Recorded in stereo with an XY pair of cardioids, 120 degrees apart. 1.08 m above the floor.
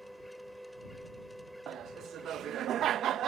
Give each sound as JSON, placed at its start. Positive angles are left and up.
{"t": 0.0, "sound": "a machine running", "azimuth_deg": 0}
{"t": 1.7, "sound": "laughter", "azimuth_deg": -60}